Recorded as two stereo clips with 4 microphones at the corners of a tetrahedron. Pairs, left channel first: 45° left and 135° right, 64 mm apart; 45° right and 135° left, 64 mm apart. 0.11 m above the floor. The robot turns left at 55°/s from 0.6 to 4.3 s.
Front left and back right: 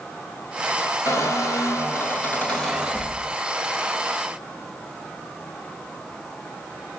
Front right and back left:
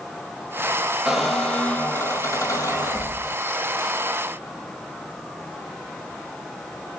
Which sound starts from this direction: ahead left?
A squeak, at 1.1 s.